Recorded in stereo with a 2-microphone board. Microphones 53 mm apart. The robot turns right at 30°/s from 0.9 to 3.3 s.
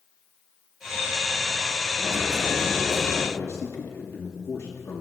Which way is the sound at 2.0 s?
65° left.